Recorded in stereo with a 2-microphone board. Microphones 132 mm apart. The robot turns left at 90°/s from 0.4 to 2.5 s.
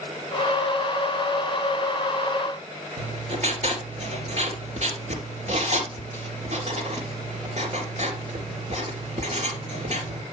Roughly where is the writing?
Right.